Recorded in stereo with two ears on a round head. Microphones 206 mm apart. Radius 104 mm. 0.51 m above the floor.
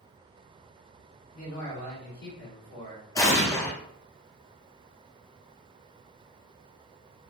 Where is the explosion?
15° left (ahead or behind), 0.6 m.